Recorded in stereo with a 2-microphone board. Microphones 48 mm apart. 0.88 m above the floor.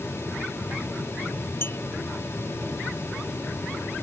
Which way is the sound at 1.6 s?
55° left (ahead or behind).